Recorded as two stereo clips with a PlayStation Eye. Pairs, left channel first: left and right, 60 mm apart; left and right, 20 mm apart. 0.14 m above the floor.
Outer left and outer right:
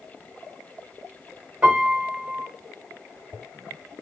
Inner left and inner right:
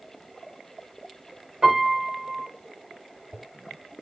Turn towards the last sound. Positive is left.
turn(degrees=-20)  # may be behind; listen again after turning